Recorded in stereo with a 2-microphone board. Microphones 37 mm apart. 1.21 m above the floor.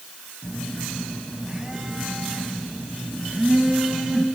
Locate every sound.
0.4 s a phone buzzing: 20° right (ahead or behind), 3.5 m